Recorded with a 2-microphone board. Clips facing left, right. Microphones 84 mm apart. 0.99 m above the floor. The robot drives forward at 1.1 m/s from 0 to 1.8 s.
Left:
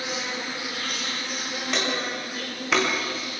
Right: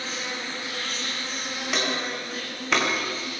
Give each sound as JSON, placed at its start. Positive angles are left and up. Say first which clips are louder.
{"t": 0.0, "sound": "an insect", "louder": "left 2 dB", "side_deg": 15, "distance_m": 5.5}
{"t": 1.7, "sound": "footsteps", "louder": "even", "side_deg": -5, "distance_m": 9.5}